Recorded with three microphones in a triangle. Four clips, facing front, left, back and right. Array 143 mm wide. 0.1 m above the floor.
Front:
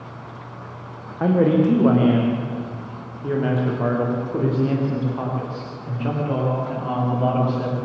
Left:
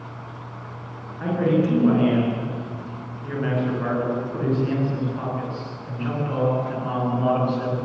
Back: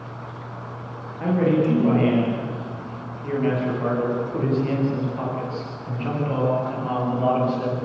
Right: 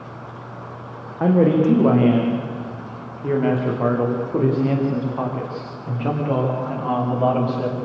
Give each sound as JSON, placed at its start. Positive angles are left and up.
{"t": 1.2, "sound": "a man speaking", "azimuth_deg": -60, "distance_m": 7.0}